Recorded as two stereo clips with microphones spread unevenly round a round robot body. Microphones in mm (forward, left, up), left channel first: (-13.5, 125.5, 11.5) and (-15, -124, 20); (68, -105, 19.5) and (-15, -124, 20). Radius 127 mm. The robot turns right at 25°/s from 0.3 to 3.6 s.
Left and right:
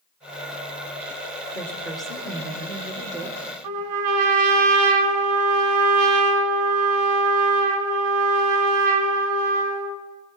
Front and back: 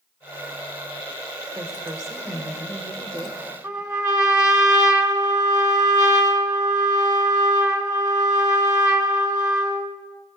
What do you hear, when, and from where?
1.6 s a woman speaking: 165° left, 1.5 m; by 3.4 s 150° right, 1.5 m
3.6 s a trumpet: 115° right, 2.5 m